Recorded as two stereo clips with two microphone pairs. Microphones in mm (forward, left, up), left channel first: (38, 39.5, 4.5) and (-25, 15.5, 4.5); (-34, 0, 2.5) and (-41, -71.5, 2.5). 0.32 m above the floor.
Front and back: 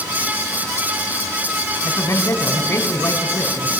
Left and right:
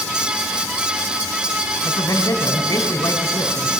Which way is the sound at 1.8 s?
60° left.